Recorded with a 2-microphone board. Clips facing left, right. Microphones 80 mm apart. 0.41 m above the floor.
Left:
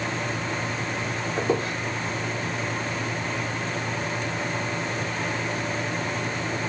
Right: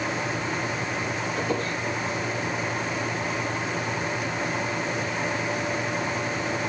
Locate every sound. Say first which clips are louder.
1.4 s a squeak: left 5 dB; 30° left (ahead or behind), 7 m